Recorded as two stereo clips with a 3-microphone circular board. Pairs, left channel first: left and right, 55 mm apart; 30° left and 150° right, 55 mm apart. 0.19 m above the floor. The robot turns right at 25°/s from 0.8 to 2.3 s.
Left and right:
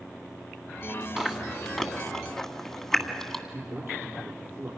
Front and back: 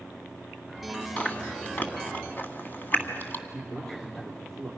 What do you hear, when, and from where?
1.2 s chewing: 15° right, 1.8 m; by 3.4 s 15° left, 1.8 m
3.5 s a man speaking: 55° right, 5.5 m